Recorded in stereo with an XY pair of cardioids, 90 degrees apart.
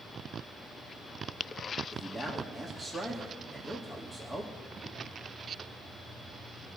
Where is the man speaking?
5° left, 3 m.